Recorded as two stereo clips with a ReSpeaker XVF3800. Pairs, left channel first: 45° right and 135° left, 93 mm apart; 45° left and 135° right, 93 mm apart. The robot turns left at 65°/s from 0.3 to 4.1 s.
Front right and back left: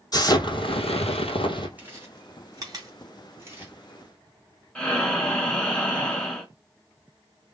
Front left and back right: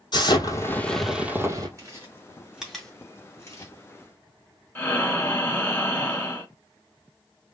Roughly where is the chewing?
Behind.